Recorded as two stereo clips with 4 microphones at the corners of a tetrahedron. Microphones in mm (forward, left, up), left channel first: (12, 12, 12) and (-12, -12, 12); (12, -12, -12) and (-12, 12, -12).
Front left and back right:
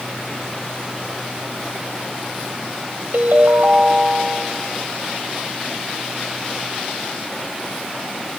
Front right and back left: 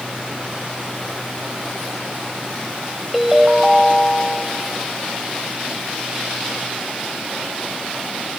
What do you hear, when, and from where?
3.1 s a ringtone: 145° right, 1.5 m